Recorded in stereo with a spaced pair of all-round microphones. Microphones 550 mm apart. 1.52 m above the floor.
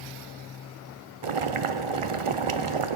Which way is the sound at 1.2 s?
75° right (ahead or behind).